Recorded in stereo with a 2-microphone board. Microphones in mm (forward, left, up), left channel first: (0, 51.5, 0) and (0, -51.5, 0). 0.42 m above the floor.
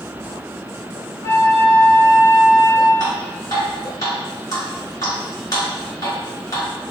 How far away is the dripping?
About 1.8 m.